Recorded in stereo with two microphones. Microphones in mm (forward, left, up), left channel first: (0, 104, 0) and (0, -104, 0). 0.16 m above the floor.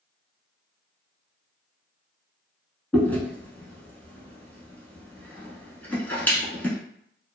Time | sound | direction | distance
2.9 | chewing | 10° left (ahead or behind) | 0.9 m